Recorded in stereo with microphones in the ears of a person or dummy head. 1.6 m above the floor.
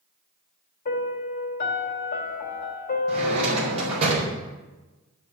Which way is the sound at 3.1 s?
40° right (ahead or behind).